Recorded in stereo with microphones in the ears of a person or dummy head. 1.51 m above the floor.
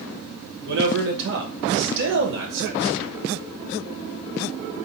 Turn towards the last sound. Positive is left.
turn(degrees=-60)  # may be behind; listen again after turning